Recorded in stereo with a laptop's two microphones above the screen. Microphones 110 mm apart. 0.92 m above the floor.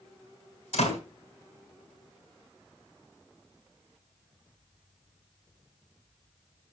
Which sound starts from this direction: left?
A door slam, at 0.7 s.